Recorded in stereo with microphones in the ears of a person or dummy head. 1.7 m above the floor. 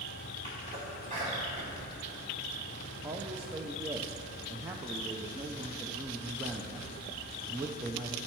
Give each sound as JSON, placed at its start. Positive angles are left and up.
{"t": 0.4, "sound": "a sneeze", "side_deg": -35, "distance_m": 3.0}
{"t": 3.0, "sound": "a man speaking", "side_deg": -20, "distance_m": 0.6}